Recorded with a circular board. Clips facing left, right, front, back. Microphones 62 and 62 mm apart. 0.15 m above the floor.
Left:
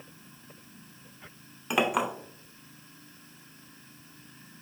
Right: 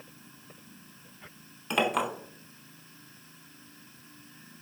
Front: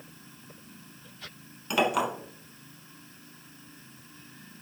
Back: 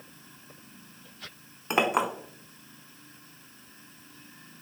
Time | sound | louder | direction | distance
1.7 | a clink | left 1 dB, back 1 dB | 155° left | 0.8 m